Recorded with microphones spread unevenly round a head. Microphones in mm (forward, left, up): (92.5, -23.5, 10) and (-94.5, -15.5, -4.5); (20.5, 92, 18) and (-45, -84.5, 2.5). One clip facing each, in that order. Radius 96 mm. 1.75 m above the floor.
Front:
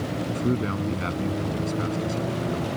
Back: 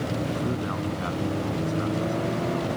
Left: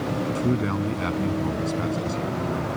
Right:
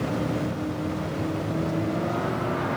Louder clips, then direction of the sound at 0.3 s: Front 3 dB, left 4 dB; 65° left.